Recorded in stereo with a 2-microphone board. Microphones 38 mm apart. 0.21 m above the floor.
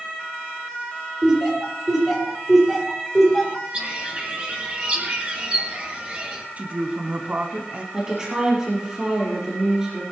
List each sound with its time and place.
1.2 s laughter: 15° right (ahead or behind), 6 m; by 3.6 s centre (ahead or behind), 6.5 m
3.7 s a bird: 35° right (ahead or behind), 4 m
6.6 s a woman speaking: 40° right (ahead or behind), 1.6 m
7.9 s a woman speaking: 15° right (ahead or behind), 6 m